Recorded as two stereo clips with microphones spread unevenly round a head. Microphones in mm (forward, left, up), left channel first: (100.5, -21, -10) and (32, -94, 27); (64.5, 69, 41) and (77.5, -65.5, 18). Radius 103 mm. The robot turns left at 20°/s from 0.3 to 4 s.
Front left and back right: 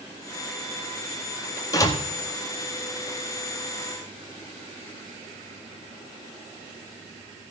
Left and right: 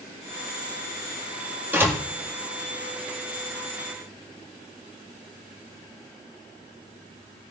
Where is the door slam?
10° right, 1.8 m; by 2.0 s 15° right, 1.8 m.